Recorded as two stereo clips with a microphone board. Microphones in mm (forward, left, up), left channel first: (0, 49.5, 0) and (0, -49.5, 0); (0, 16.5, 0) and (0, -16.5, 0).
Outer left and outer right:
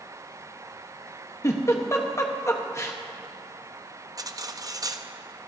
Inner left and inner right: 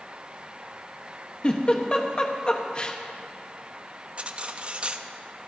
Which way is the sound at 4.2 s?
35° right (ahead or behind).